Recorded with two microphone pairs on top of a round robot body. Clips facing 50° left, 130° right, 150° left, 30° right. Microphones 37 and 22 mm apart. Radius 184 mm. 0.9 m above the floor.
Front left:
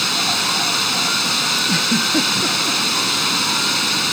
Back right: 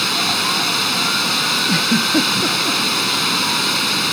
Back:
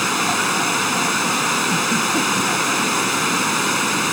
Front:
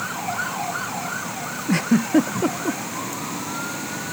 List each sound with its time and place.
0.0 s running water: 145° left
1.7 s a giggle: 45° right